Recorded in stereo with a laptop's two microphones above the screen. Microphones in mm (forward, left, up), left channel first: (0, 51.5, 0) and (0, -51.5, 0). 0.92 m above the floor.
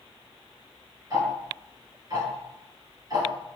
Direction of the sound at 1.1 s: 45° right (ahead or behind).